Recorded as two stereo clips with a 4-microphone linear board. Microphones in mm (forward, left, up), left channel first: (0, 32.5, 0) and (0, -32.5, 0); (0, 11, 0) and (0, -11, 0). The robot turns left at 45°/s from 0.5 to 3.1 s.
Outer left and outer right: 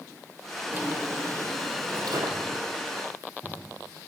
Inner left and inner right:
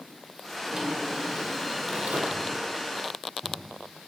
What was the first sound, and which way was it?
A drawer, 25° right.